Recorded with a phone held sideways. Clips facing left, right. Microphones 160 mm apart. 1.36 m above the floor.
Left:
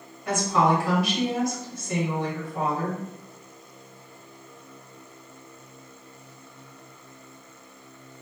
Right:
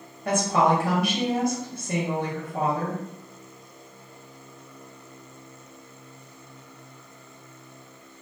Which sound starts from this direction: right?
A woman speaking, at 0.2 s.